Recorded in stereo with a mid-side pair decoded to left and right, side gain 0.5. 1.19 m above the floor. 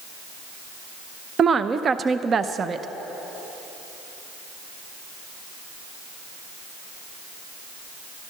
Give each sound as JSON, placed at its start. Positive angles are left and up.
{"t": 1.4, "sound": "a woman speaking", "azimuth_deg": -40, "distance_m": 0.5}